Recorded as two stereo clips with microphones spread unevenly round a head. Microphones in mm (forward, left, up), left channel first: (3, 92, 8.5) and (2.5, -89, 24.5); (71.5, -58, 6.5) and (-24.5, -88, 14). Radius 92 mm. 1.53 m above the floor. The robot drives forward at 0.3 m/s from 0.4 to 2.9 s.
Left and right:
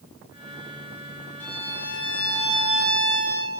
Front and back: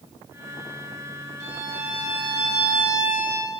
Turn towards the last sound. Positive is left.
turn(degrees=170)